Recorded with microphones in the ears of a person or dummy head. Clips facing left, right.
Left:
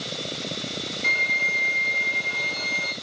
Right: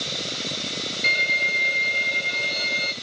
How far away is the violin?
About 4 m.